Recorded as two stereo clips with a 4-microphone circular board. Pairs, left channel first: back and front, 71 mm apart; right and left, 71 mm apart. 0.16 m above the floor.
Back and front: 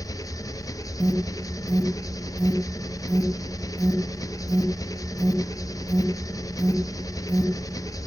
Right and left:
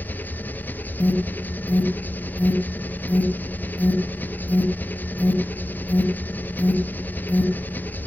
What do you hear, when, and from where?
0.0 s an engine running: 155° right, 0.8 m
1.0 s an alarm: 50° left, 2.5 m